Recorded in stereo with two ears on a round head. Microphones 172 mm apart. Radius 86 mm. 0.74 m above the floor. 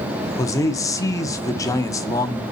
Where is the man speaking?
15° left (ahead or behind), 1.0 m.